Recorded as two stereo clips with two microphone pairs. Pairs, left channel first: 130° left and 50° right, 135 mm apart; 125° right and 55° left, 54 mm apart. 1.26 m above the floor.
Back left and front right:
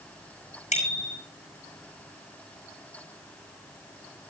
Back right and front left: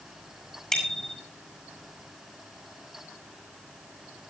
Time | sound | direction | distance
0.7 | a bicycle bell | 150° left | 7.5 m